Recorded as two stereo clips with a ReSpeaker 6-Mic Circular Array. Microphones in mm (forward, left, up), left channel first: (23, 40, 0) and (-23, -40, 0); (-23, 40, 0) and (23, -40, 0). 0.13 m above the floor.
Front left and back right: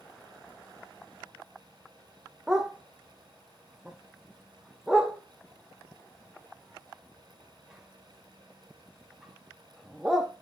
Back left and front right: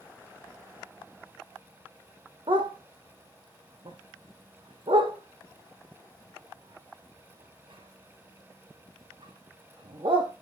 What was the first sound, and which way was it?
A dog barking, 35° right.